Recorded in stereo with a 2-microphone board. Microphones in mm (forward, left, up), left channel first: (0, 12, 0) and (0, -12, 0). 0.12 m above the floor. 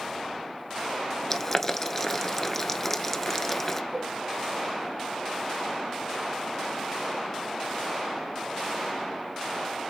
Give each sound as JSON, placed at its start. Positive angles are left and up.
{"t": 1.3, "sound": "boiling", "side_deg": 15, "distance_m": 0.8}
{"t": 3.9, "sound": "a cowbell", "side_deg": -35, "distance_m": 2.0}